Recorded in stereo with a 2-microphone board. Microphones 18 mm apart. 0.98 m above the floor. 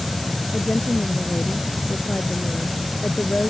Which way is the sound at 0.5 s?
80° left.